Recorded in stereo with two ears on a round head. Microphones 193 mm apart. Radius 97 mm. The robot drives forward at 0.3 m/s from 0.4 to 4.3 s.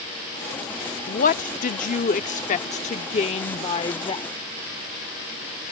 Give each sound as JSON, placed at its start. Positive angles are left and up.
{"t": 1.1, "sound": "a woman speaking", "side_deg": 40}